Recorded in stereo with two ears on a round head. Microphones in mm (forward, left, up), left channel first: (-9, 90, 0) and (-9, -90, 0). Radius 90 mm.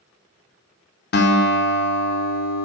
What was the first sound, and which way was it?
A guitar, 50° left (ahead or behind).